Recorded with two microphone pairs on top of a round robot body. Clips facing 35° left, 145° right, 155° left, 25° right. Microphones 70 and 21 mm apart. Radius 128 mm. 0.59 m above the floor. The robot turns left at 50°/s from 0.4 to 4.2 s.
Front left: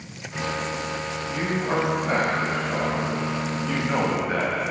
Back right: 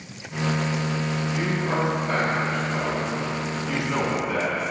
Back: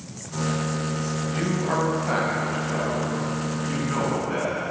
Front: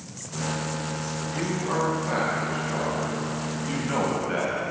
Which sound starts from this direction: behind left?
A man speaking, at 1.3 s.